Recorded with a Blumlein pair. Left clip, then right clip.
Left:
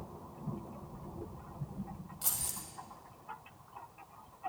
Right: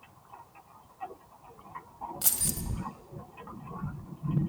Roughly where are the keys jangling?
Ahead right.